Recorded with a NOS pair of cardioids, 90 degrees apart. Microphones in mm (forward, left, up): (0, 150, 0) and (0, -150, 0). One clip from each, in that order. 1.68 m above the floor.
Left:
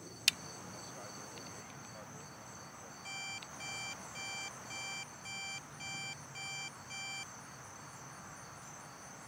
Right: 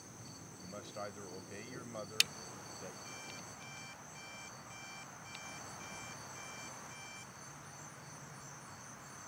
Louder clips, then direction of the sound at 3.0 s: Left 5 dB; 45° left.